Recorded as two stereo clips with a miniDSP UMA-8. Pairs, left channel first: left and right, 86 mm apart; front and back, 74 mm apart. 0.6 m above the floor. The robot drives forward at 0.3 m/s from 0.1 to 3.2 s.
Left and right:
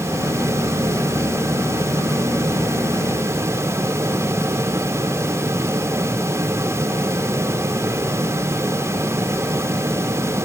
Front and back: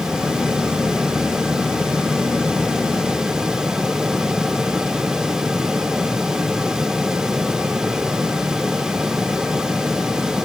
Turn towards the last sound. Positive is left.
No sound to turn to.